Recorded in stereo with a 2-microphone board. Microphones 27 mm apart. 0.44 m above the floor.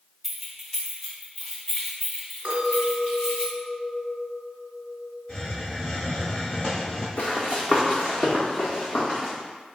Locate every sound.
0.2 s keys jangling: 15° right (ahead or behind), 1.0 m; by 3.5 s 20° left (ahead or behind), 2 m
2.5 s a clink: 50° right (ahead or behind), 1.6 m
5.3 s a hiss: 15° left (ahead or behind), 1.8 m
7.2 s running footsteps: 50° left (ahead or behind), 1.1 m; by 9.3 s 30° left (ahead or behind), 2.5 m